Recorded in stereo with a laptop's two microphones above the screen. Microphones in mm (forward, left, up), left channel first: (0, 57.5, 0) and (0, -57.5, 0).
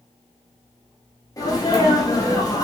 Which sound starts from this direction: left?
A sneeze, at 1.4 s.